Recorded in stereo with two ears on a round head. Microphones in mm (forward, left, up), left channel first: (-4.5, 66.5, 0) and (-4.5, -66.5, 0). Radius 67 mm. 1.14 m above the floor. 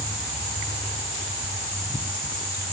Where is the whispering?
I don't hear whispering.